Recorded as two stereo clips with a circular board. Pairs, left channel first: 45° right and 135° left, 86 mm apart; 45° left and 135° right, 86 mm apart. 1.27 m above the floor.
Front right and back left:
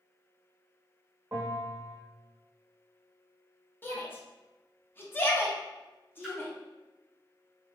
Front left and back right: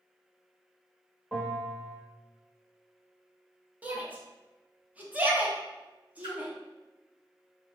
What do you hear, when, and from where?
1.3 s a bell: 150° left, 1.0 m
3.8 s a shout: 80° right, 0.6 m
6.2 s a splash: 135° right, 0.9 m